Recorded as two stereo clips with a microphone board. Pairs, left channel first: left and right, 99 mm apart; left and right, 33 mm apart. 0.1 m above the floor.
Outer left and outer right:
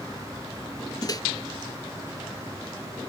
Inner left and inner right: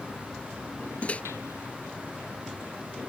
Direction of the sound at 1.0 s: 40° left (ahead or behind).